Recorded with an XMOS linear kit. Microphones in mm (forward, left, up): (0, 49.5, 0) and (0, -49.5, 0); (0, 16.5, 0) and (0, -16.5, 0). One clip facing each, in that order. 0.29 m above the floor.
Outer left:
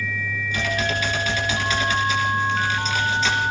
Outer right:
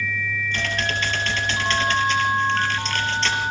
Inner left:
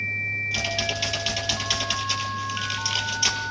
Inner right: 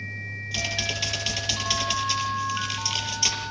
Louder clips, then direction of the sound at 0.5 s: Outer left 4 dB, inner left 2 dB; 5° left (ahead or behind).